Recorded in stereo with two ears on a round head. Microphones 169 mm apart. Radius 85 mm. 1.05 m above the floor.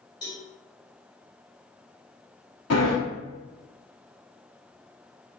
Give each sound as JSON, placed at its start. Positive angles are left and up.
{"t": 0.2, "sound": "a cowbell", "side_deg": 25, "distance_m": 1.4}
{"t": 2.7, "sound": "a sliding door", "side_deg": 60, "distance_m": 1.7}